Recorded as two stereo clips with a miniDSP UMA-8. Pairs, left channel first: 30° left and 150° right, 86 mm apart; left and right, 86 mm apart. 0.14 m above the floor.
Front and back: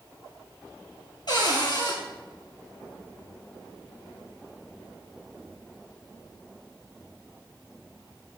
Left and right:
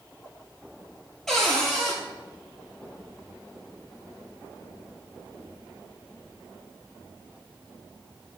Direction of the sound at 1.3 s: 5° left.